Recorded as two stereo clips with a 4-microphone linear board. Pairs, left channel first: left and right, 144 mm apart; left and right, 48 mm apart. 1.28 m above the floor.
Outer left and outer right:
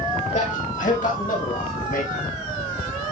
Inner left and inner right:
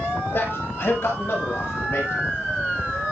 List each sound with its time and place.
0.3 s a man speaking: 60° left (ahead or behind), 6 m; by 2.3 s 85° left, 6.5 m